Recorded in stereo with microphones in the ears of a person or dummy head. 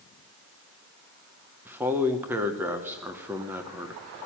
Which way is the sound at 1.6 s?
20° right (ahead or behind).